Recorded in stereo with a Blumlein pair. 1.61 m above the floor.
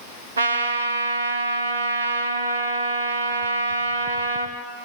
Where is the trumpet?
70° right, 2 m.